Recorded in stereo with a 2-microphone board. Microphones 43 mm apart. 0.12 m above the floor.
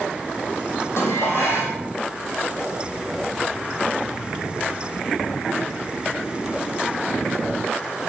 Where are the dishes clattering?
75° left (ahead or behind), 3 m.